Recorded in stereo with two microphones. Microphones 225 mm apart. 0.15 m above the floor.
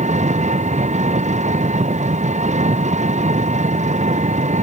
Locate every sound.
0.0 s an engine running: 35° right (ahead or behind)